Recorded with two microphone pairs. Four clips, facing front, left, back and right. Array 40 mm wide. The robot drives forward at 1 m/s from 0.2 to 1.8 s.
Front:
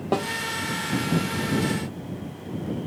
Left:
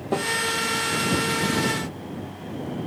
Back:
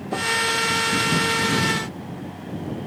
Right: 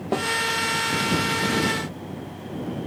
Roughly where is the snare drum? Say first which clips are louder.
Even, even; ahead.